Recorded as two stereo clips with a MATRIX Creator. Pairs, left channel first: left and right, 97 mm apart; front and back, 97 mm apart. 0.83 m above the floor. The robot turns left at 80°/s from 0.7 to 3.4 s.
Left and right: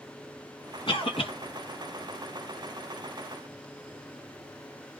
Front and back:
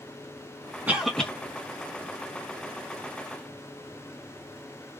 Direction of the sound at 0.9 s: 110° left.